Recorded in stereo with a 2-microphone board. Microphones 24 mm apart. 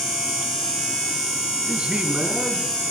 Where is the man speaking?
50° right (ahead or behind), 2 m; by 2.7 s 70° right (ahead or behind), 2.5 m.